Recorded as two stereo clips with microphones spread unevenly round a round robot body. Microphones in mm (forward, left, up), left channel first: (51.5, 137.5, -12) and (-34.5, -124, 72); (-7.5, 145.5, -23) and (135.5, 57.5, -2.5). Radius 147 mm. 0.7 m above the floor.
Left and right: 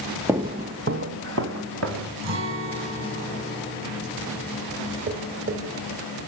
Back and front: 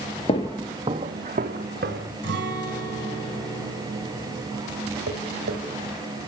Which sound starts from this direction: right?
A guitar, at 2.2 s.